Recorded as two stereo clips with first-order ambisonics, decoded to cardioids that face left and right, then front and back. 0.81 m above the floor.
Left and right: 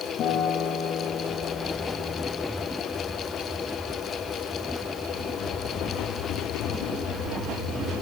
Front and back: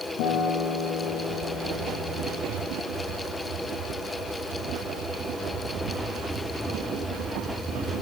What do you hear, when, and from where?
0.2 s a guitar: 35° left, 6 m